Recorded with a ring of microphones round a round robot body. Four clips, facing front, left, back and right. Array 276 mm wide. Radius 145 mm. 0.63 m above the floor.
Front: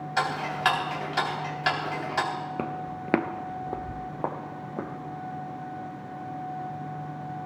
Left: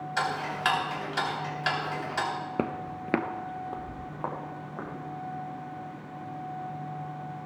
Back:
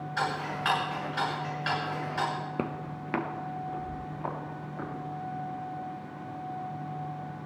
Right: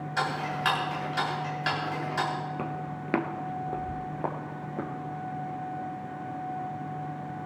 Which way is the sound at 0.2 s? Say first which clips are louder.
Even, front 4 dB; 5° left.